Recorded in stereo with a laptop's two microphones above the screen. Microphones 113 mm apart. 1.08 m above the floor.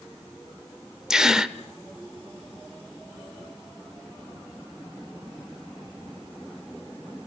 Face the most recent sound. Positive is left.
turn(degrees=-5)  # may be behind; listen again after turning